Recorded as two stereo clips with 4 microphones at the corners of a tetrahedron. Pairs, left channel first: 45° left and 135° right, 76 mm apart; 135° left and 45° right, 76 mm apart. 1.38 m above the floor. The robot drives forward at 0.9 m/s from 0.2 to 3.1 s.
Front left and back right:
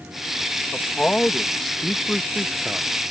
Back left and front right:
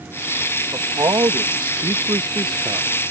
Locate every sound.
0.7 s a man speaking: 25° right; by 2.9 s 65° right